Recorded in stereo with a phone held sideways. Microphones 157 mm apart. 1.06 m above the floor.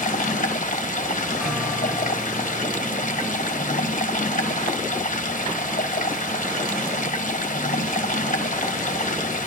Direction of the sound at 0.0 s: 55° left (ahead or behind).